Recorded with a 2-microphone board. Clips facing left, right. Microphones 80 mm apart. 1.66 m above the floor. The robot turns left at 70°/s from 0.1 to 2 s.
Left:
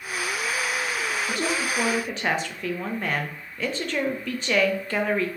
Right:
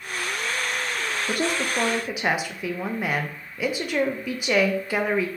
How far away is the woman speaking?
About 0.7 m.